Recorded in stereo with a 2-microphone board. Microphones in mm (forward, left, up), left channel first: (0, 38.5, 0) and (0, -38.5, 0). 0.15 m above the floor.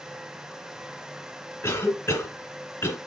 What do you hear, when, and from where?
1.6 s a cough: 30° left (ahead or behind), 1.7 m